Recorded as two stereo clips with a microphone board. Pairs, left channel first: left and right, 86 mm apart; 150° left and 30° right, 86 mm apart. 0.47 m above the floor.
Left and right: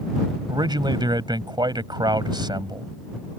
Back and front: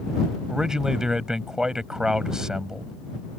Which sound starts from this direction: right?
A man speaking, at 0.5 s.